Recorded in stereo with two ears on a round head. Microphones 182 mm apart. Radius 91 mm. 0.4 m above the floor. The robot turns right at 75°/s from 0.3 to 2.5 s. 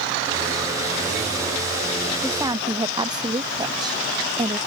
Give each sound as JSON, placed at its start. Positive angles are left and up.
{"t": 2.2, "sound": "a woman speaking", "side_deg": 0}